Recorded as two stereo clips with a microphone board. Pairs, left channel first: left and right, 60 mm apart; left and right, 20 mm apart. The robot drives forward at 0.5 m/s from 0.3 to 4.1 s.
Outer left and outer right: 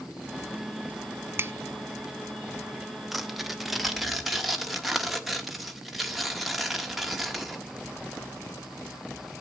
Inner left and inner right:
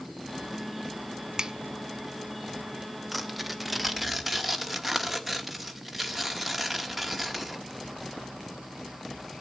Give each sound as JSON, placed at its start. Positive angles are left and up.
{"t": 1.4, "sound": "a finger snap", "side_deg": -40, "distance_m": 0.5}
{"t": 3.1, "sound": "tearing paper", "side_deg": 0, "distance_m": 0.6}